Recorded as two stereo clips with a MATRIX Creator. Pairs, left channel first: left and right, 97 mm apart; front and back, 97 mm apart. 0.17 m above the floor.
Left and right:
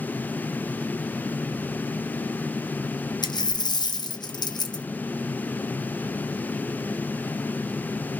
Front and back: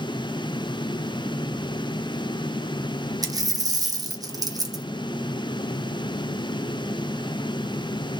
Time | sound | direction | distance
3.2 | a dropped coin | 130° left | 1.1 m